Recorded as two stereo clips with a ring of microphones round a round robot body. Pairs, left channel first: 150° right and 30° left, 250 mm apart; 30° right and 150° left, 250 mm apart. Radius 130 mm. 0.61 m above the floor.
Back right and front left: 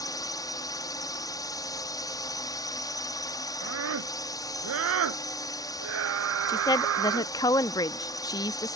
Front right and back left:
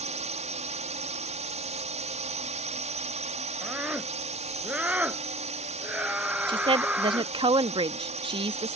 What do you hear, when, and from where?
0.0 s a drone: 155° left
3.6 s a scream: 65° left
6.5 s a woman speaking: 170° left